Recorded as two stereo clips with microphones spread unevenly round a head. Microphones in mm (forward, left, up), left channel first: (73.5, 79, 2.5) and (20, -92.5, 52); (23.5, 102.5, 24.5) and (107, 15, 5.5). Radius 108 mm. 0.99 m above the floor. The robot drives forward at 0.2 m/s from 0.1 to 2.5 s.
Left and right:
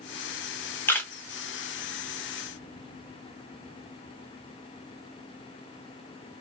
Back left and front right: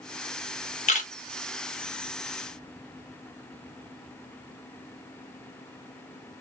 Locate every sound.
0.9 s a camera shutter: 140° left, 0.8 m